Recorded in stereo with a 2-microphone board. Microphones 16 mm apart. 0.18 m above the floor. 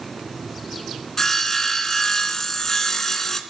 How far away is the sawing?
About 0.8 m.